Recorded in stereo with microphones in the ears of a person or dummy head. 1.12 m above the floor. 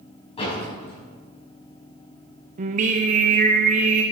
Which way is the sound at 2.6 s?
40° right (ahead or behind).